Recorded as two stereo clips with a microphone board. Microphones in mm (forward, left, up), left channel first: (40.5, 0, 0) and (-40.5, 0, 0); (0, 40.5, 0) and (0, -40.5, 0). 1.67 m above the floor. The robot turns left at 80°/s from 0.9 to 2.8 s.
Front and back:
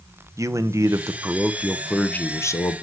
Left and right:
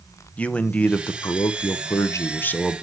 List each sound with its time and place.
0.4 s a man speaking: 160° left, 0.7 m; by 2.8 s 5° left, 0.7 m